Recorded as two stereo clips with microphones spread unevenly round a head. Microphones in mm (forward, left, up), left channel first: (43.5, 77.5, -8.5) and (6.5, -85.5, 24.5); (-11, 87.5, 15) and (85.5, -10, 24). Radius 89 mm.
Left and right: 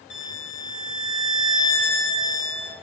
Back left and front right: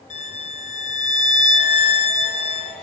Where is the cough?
No cough in this recording.